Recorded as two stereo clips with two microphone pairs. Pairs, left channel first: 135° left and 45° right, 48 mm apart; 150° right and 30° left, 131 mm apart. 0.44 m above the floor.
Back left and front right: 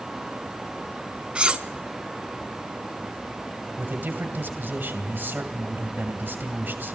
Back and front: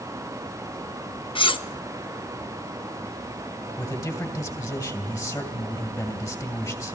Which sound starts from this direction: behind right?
Cutlery clinking, at 1.4 s.